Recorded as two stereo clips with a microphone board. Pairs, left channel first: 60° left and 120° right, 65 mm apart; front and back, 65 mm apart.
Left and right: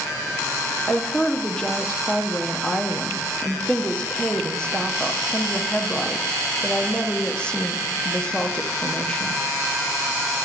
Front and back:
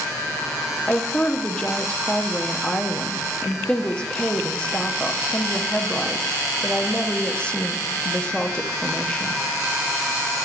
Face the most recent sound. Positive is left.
turn(degrees=20)